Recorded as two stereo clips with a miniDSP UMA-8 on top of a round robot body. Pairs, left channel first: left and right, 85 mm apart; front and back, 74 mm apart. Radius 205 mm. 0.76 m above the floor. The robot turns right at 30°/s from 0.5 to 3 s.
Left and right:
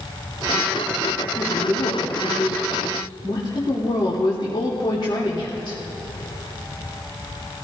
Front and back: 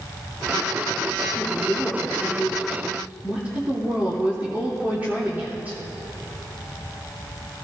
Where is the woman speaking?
60° left, 3 m; by 5.8 s 115° left, 3 m.